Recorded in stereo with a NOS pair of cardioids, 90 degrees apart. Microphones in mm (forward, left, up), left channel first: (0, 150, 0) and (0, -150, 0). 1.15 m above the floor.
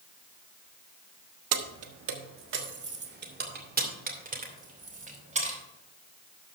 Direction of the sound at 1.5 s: 60° right.